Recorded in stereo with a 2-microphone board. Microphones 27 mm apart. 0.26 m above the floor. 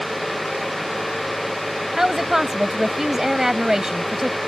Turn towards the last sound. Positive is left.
turn(degrees=-20)  # may be behind; listen again after turning